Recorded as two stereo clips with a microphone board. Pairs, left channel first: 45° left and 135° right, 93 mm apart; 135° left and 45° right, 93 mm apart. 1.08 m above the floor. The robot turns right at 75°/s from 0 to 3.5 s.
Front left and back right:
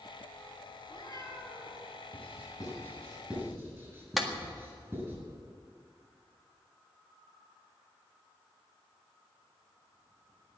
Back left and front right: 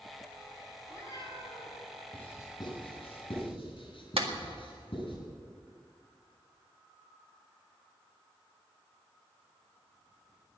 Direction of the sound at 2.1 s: 60° left.